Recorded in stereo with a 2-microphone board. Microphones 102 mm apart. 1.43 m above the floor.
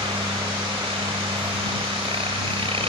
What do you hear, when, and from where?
0.0 s a helicopter: 65° right (ahead or behind); by 2.9 s 60° right (ahead or behind)